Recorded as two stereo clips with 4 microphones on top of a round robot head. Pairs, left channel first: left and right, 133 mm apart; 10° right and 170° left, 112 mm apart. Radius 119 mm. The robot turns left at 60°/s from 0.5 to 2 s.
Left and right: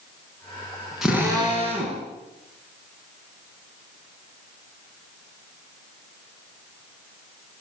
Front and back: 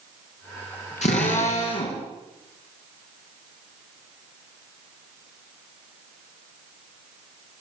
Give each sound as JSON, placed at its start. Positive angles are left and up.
{"t": 1.0, "sound": "a drill", "azimuth_deg": -5, "distance_m": 5.0}